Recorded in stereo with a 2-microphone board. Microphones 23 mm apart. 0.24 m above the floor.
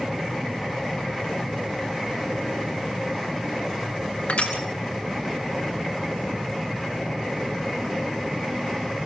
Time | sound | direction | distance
4.3 | crushing | 70° left (ahead or behind) | 3 m